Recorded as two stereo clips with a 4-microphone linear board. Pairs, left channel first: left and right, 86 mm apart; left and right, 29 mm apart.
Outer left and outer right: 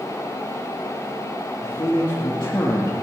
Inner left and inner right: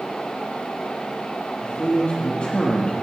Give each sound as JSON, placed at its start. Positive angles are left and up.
{"t": 1.6, "sound": "a man speaking", "side_deg": 55, "distance_m": 2.0}